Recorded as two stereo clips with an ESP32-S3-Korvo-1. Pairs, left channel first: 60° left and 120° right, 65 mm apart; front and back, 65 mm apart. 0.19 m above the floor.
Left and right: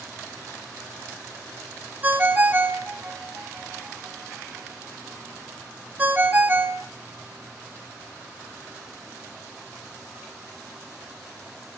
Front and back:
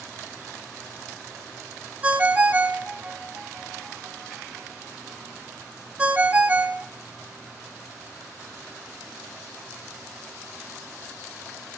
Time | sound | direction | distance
2.0 | a ringtone | 135° right | 0.6 m